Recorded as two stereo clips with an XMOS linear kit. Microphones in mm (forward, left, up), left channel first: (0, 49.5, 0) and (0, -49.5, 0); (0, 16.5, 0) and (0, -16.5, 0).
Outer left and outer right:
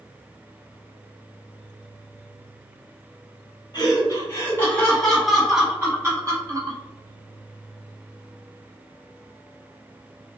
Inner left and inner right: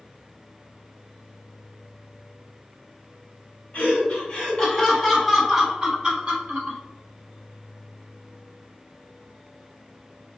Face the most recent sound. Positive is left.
turn(degrees=-40)  # may be behind; listen again after turning